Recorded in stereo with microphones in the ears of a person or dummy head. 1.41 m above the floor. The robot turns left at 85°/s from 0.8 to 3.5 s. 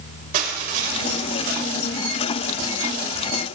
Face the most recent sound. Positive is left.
turn(degrees=80)